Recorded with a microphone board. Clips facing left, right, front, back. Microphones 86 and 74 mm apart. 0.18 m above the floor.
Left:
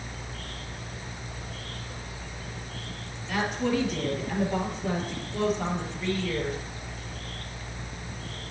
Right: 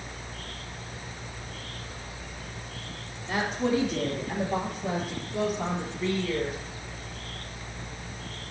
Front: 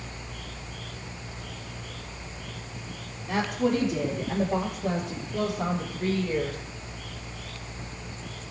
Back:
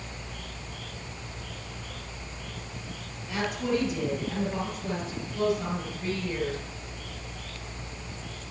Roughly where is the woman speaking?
Ahead right.